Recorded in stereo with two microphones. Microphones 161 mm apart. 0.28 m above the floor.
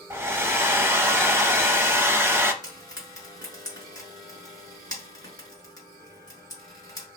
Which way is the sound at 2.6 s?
25° left (ahead or behind).